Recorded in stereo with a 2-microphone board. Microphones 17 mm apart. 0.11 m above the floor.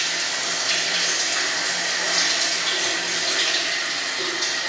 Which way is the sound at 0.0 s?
10° right (ahead or behind).